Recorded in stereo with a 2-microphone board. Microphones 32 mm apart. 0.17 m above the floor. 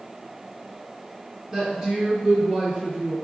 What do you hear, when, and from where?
1.5 s a woman speaking: 15° right (ahead or behind), 1.8 m